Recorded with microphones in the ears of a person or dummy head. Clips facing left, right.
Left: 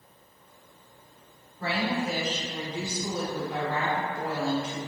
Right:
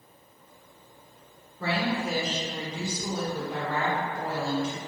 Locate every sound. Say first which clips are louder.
1.6 s a woman speaking: even; 75° right (ahead or behind), 1.0 m; by 4.8 s 25° right (ahead or behind), 2 m